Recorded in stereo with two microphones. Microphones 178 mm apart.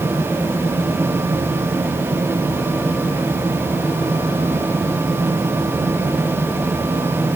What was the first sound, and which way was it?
Only background noise.